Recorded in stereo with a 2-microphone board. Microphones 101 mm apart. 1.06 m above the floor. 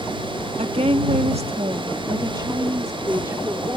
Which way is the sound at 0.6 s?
75° right (ahead or behind).